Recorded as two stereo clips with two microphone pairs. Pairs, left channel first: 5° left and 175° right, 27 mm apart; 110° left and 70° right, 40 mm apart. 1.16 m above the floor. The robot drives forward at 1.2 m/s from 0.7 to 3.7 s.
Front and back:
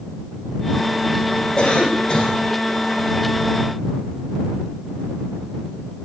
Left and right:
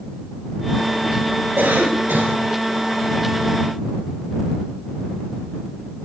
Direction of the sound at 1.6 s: 55° right.